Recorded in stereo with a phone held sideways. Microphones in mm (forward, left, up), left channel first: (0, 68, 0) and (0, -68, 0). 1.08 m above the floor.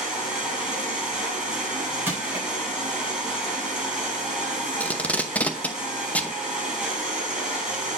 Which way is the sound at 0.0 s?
5° right (ahead or behind).